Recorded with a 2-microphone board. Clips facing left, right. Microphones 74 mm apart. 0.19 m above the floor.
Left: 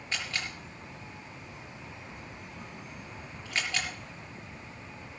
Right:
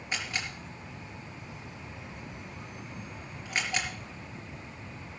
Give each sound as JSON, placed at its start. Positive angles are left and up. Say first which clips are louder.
{"t": 0.1, "sound": "a camera shutter", "louder": "right 1 dB", "side_deg": -15, "distance_m": 4.5}